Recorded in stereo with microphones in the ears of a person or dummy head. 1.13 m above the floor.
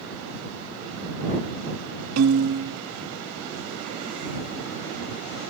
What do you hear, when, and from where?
2.2 s a piano: 75° right (ahead or behind)